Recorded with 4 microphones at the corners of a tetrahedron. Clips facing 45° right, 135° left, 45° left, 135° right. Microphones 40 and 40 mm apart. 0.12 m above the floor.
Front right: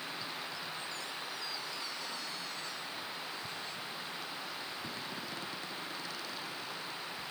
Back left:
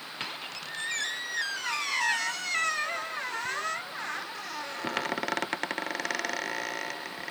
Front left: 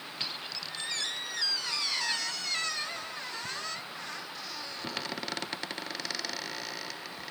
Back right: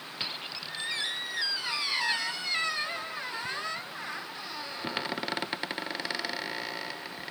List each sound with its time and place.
0.2 s a squeak: 155° left